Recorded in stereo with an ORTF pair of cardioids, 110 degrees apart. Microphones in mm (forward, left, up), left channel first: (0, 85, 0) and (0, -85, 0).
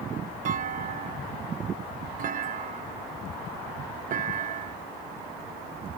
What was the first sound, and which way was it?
A clunk, 55° right.